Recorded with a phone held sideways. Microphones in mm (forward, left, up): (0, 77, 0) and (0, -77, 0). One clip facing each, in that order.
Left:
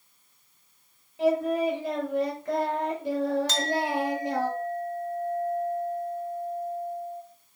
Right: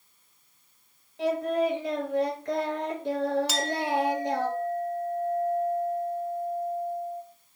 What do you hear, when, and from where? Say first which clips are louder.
1.2 s singing: left 2 dB; 5° left (ahead or behind), 5.5 m
3.5 s a clink: even; 10° right (ahead or behind), 1.2 m